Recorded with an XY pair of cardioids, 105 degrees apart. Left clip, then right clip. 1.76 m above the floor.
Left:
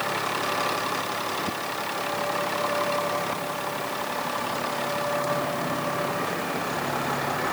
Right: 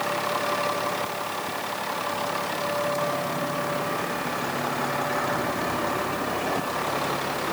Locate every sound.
Only background noise.